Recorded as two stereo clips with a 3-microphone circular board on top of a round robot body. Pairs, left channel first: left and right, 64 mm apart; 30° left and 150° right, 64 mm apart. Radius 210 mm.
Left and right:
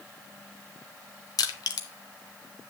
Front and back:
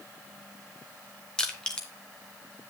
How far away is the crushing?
About 0.6 m.